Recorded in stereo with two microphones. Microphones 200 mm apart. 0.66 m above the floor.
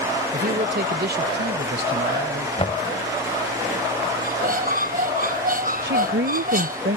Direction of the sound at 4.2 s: 45° right (ahead or behind).